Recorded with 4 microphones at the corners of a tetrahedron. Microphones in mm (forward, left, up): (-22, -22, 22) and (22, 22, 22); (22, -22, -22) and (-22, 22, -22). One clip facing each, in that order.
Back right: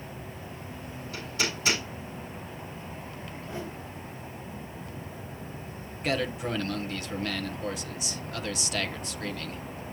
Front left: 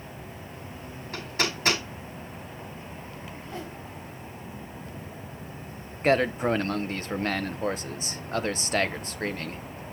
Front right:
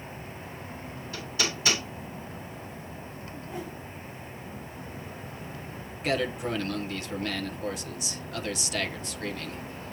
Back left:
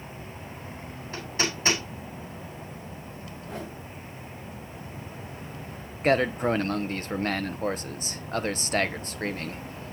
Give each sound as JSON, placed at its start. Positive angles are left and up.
{"t": 1.1, "sound": "hammering", "azimuth_deg": 80, "distance_m": 5.5}
{"t": 3.3, "sound": "a whoosh", "azimuth_deg": 150, "distance_m": 8.5}
{"t": 6.0, "sound": "a man speaking", "azimuth_deg": 90, "distance_m": 1.0}